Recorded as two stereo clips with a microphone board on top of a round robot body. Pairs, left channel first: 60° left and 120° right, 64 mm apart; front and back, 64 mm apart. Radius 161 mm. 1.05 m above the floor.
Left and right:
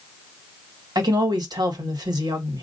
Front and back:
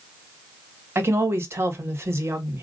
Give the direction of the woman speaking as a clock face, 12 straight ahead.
4 o'clock.